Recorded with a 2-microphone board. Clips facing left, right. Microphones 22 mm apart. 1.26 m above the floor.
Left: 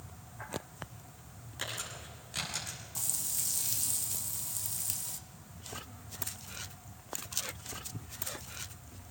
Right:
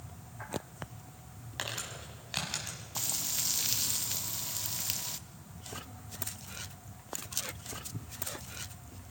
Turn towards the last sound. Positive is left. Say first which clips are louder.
# right 4 dB
turn(degrees=-35)  # may be behind; listen again after turning